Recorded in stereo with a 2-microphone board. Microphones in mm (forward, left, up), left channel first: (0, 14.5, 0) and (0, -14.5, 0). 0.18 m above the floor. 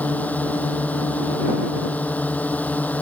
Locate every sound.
0.0 s a drone: 65° left (ahead or behind)